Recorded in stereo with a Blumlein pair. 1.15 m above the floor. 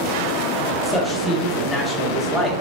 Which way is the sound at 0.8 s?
5° left.